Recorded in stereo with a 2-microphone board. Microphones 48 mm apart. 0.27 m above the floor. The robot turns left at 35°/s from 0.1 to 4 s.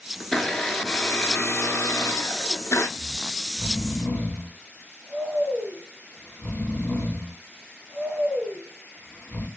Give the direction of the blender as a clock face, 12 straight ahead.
6 o'clock.